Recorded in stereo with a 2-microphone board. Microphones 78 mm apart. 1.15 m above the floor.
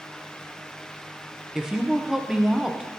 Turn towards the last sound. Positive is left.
turn(degrees=-10)  # may be behind; listen again after turning